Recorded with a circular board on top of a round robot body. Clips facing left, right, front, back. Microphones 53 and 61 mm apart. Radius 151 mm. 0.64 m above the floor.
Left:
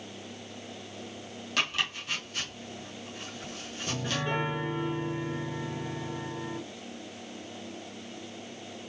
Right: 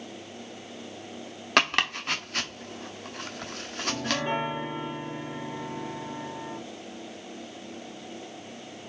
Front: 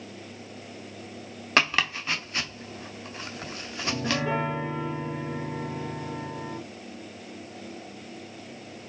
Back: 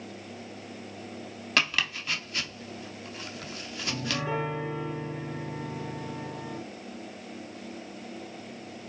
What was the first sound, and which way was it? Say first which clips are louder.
Chopping: right 7 dB, front 4 dB; 60° right.